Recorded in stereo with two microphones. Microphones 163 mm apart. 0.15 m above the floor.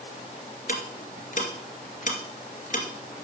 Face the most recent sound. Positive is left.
turn(degrees=50)  # may be behind; listen again after turning